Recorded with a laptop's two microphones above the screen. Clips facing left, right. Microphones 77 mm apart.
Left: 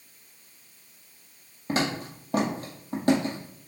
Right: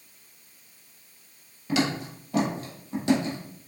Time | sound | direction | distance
1.7 | footsteps | 40° left (ahead or behind) | 1.2 m